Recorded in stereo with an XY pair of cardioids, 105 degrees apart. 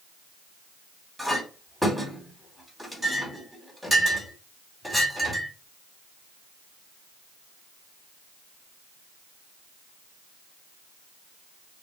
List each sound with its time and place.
1.2 s a clink: 5° right, 2.5 m